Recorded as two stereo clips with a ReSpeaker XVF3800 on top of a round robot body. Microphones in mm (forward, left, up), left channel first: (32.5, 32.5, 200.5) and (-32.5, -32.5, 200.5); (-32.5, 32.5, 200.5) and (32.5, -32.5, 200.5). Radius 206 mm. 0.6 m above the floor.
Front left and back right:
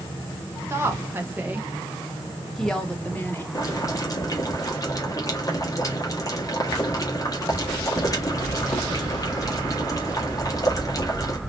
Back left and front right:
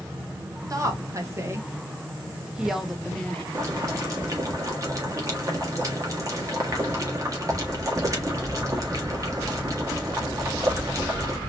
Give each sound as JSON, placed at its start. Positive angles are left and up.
{"t": 0.7, "sound": "a woman speaking", "azimuth_deg": -85, "distance_m": 1.6}
{"t": 3.5, "sound": "boiling", "azimuth_deg": 0, "distance_m": 1.8}